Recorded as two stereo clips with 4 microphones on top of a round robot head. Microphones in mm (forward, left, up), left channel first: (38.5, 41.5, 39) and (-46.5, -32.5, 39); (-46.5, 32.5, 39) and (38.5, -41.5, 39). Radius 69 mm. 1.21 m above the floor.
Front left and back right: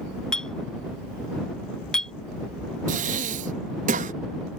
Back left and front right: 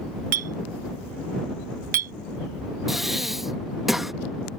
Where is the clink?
45° right.